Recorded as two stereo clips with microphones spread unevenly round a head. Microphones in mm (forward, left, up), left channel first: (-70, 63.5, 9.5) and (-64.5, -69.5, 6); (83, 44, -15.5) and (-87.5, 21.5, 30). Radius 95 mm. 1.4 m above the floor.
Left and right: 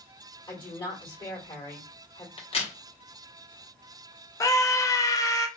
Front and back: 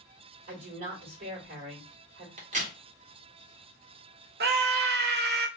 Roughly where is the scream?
Behind.